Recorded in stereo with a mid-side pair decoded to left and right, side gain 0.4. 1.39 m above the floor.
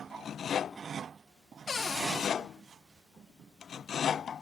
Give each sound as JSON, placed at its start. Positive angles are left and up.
{"t": 1.7, "sound": "a cupboard door", "azimuth_deg": 40, "distance_m": 1.3}